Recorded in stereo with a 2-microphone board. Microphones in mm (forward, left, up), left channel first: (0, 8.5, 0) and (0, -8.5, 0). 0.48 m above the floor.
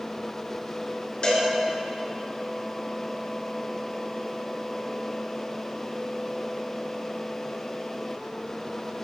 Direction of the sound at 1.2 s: 50° left (ahead or behind).